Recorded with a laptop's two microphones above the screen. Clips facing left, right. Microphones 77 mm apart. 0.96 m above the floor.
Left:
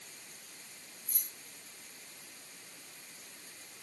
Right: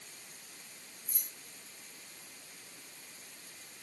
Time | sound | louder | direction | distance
1.1 | keys jangling | right 1 dB | 85° left | 7.5 m